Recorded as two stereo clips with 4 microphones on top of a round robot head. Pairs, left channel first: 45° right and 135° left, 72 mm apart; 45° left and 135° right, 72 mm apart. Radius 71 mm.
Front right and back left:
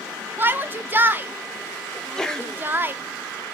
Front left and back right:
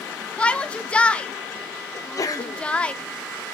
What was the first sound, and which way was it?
A shout, 105° left.